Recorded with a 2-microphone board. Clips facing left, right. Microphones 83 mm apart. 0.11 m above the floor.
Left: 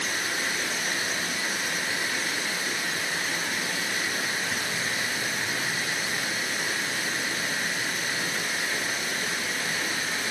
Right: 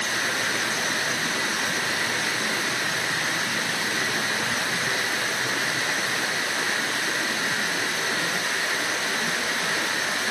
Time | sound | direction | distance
0.0 | running water | 85° right | 2.5 m